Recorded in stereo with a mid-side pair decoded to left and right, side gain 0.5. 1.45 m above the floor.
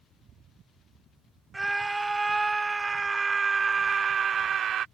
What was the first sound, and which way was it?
A scream, 10° right.